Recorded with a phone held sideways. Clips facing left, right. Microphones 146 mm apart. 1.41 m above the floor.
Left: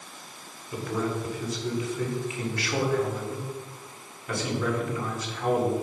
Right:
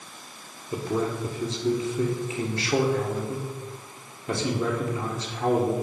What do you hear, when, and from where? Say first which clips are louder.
0.7 s a man speaking: right 2 dB; 25° right (ahead or behind), 1.4 m